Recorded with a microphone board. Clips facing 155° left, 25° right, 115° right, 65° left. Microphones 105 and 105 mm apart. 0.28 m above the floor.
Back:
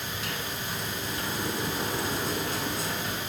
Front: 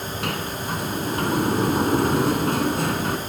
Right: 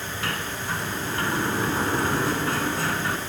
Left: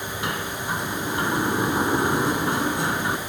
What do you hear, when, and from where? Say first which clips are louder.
0.2 s a sliding door: front 9 dB, left 2 dB; straight ahead, 2.5 m